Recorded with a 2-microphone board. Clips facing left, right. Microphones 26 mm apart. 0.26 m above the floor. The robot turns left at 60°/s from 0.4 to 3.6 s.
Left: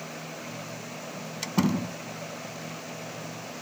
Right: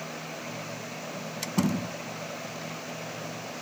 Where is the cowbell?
No cowbell in this recording.